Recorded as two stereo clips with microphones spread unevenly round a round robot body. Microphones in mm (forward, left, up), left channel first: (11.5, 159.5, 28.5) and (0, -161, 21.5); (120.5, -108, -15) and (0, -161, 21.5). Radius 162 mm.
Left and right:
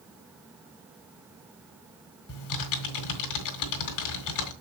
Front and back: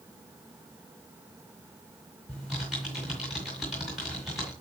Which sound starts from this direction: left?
Typing on a keyboard, at 2.3 s.